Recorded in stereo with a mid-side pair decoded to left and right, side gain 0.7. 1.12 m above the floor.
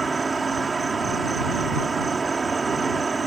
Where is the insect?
15° right.